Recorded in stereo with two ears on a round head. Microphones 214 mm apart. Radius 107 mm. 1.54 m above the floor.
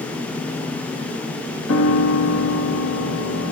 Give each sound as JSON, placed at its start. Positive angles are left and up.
{"t": 1.7, "sound": "a piano", "side_deg": 65, "distance_m": 2.0}